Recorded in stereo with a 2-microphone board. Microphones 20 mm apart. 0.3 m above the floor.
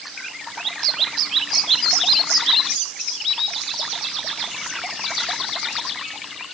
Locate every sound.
Only background noise.